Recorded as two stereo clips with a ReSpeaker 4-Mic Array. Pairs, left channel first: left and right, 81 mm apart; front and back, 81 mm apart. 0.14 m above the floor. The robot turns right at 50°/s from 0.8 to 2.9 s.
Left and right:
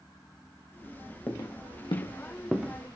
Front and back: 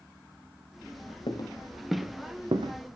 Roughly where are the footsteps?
Ahead.